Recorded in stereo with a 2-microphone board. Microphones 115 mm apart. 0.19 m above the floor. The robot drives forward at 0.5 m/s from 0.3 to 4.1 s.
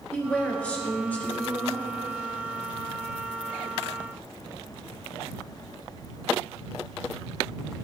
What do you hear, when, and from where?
0.1 s a woman speaking: 10° left (ahead or behind), 2.5 m; by 1.9 s 15° left (ahead or behind), 1.7 m